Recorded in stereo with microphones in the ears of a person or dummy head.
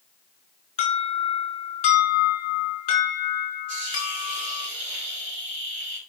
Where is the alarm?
40° left (ahead or behind), 5.5 m.